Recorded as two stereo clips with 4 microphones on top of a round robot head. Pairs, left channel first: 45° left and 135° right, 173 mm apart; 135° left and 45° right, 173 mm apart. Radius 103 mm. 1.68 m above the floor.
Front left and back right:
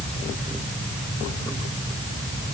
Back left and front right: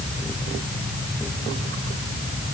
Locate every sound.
Only background noise.